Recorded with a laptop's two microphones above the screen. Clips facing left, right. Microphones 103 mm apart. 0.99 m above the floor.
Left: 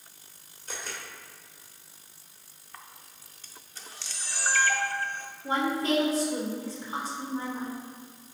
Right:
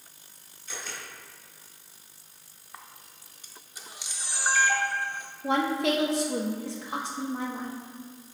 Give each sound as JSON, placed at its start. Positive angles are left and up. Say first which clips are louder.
{"t": 0.7, "sound": "a camera shutter", "louder": "left 1 dB", "side_deg": 45, "distance_m": 1.7}
{"t": 2.7, "sound": "a camera shutter", "louder": "right 1 dB", "side_deg": -15, "distance_m": 0.6}
{"t": 5.4, "sound": "a woman speaking", "louder": "right 2 dB", "side_deg": -75, "distance_m": 1.2}